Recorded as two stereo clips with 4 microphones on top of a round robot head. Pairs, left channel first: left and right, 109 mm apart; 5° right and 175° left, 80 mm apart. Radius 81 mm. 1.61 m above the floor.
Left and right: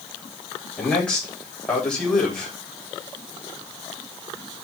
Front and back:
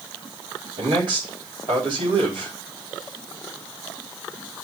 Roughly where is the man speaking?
Behind.